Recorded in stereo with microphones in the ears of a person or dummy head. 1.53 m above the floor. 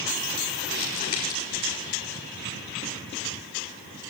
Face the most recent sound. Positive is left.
turn(degrees=50)  # may be behind; listen again after turning